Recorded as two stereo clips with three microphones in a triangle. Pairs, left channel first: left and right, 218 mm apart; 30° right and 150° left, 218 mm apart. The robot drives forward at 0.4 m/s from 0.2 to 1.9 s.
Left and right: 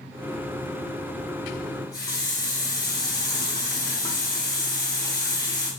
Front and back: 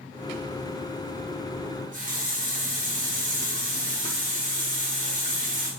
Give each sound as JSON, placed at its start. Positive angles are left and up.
{"t": 1.6, "sound": "a running tap", "azimuth_deg": 145, "distance_m": 0.9}